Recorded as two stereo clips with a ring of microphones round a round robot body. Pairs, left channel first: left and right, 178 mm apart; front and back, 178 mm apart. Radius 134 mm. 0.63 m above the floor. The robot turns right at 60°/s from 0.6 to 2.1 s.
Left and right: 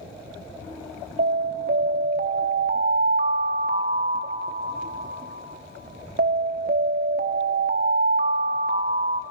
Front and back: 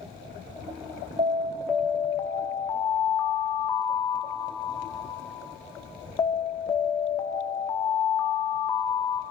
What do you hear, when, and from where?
1.2 s an alarm: 125° right, 0.8 m; by 9.2 s 70° right, 0.8 m